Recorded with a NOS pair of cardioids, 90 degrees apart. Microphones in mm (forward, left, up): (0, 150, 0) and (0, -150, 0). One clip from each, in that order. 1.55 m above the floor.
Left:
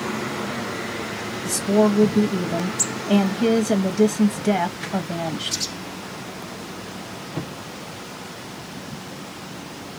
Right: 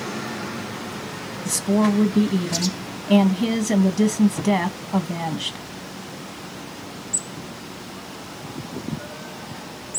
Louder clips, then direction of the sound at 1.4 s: Left 3 dB; straight ahead.